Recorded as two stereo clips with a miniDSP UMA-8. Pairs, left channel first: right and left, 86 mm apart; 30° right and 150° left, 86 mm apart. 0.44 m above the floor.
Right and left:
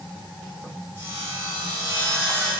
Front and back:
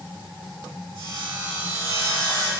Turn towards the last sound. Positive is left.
turn(degrees=135)